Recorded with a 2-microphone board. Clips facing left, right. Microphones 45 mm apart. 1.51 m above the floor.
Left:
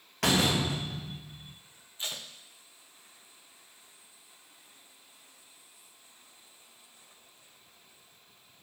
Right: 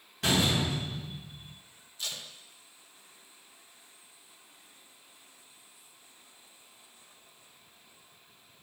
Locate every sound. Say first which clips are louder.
0.2 s a door slam: left 1 dB; 70° left (ahead or behind), 1.5 m
2.0 s tape being pulled: left 1 dB; 25° left (ahead or behind), 0.7 m